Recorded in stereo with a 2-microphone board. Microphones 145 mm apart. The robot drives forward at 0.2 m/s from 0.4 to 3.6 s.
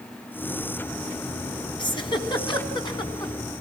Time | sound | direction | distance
1.8 | a giggle | 35° left (ahead or behind) | 2 m